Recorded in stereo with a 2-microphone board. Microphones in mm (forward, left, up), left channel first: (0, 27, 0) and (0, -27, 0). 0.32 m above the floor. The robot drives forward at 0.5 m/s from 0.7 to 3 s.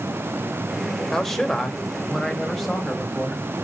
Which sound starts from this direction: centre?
A man speaking, at 1.1 s.